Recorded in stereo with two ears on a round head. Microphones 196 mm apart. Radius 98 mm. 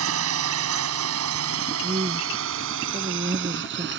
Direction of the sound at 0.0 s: 70° right (ahead or behind).